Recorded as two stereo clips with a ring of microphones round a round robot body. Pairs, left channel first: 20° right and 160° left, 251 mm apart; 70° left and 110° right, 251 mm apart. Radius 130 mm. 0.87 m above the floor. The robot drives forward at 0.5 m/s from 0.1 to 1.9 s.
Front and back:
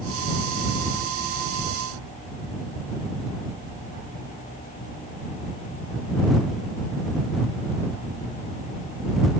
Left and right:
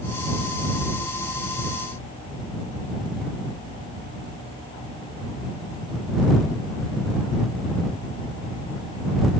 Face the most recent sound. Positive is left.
No sound to turn to.